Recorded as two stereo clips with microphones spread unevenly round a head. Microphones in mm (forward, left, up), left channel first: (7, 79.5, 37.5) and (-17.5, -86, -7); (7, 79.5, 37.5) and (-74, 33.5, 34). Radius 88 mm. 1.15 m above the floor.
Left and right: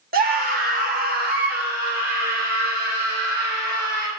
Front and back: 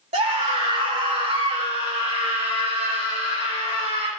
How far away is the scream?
About 1.9 m.